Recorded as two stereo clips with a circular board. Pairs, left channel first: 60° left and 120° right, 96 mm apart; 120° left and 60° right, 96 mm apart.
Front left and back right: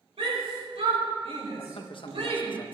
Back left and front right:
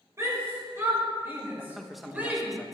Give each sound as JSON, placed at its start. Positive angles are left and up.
{"t": 0.2, "sound": "a shout", "azimuth_deg": -120, "distance_m": 6.5}
{"t": 1.6, "sound": "a man speaking", "azimuth_deg": 30, "distance_m": 1.2}